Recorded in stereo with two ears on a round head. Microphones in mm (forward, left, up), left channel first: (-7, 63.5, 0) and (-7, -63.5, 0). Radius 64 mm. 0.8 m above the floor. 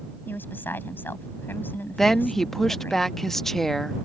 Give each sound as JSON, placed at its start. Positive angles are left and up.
{"t": 0.3, "sound": "a woman speaking", "side_deg": 15}
{"t": 2.0, "sound": "a woman speaking", "side_deg": 0}